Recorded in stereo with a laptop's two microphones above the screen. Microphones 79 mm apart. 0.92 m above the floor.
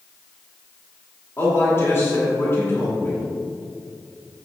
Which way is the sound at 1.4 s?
30° left (ahead or behind).